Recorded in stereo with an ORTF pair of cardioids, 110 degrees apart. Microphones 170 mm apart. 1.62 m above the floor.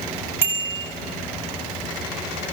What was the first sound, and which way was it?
A bicycle bell, 15° right.